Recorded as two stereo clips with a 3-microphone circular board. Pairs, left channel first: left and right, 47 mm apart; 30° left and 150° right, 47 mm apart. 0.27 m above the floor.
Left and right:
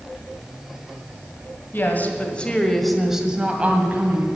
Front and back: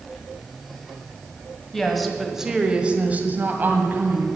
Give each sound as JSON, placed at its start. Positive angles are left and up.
{"t": 1.7, "sound": "a woman speaking", "azimuth_deg": 110, "distance_m": 1.9}